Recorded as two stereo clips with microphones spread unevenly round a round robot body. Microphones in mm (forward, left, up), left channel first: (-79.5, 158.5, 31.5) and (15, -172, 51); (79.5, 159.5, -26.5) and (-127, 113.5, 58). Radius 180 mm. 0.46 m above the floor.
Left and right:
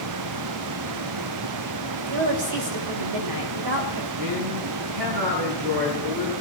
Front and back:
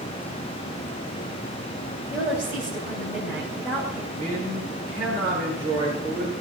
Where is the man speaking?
90° right, 7.5 m.